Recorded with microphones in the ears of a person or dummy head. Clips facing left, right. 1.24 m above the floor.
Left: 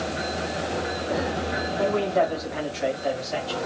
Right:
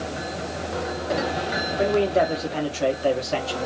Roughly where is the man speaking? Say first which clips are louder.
Right 2 dB; centre.